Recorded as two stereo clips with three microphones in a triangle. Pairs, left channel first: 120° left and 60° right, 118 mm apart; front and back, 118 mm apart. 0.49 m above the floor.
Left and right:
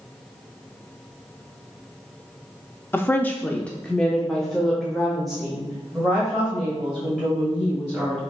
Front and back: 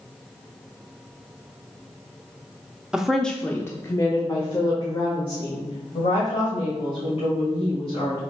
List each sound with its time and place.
2.9 s a woman speaking: 115° left, 0.7 m; by 8.2 s 25° left, 3 m